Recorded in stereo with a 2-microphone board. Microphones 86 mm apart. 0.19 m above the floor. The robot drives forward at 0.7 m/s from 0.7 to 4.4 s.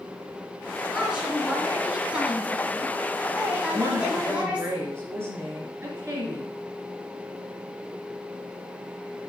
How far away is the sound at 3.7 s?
About 2.5 m.